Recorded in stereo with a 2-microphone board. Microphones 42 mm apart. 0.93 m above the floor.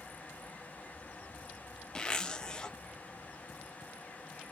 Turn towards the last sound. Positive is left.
turn(degrees=20)  # may be behind; listen again after turning